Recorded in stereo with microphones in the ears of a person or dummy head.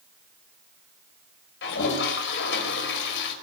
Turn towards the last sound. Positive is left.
turn(degrees=55)  # may be behind; listen again after turning